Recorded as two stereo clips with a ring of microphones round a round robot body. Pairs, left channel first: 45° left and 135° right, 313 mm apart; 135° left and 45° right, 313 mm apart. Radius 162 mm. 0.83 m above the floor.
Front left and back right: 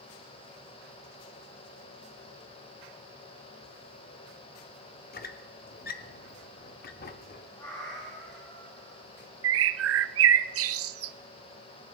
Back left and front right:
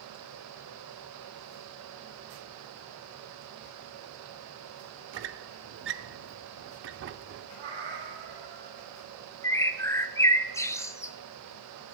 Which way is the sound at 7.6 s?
35° right.